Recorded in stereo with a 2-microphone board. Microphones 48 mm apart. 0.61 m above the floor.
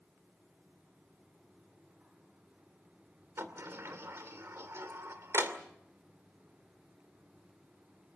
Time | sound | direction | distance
3.4 | a sliding door | 65° right (ahead or behind) | 2.5 m